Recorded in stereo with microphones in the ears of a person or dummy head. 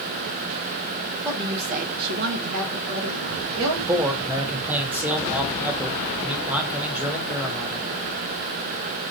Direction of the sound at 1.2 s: 15° right (ahead or behind).